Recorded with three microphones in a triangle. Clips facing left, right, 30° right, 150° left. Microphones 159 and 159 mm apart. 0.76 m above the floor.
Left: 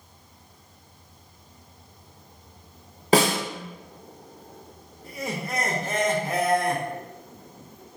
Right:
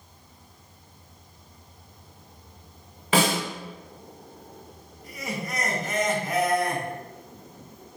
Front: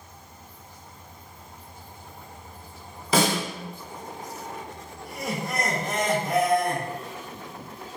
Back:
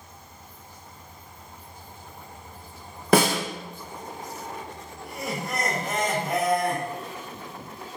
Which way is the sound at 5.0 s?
60° left.